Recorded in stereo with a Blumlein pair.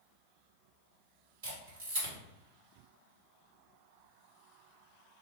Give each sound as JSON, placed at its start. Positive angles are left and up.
{"t": 1.4, "sound": "a camera shutter", "azimuth_deg": -55, "distance_m": 1.8}